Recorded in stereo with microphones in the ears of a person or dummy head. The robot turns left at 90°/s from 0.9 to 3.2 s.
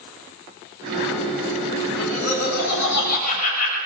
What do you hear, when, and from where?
1.9 s laughter: 170° left, 8 m; by 3.8 s 50° left, 8 m